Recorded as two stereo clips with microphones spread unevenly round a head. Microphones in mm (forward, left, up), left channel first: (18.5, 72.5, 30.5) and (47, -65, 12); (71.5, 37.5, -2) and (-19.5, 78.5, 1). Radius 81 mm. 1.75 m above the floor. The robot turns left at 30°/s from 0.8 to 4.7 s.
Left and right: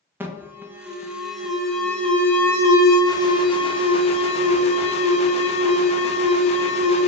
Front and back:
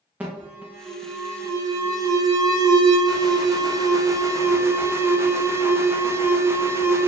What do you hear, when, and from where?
0.2 s an alarm: 135° right, 0.6 m; by 7.1 s 110° left, 0.6 m